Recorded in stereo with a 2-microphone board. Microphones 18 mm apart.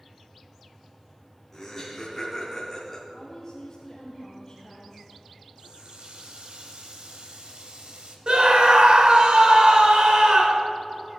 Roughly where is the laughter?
Centre.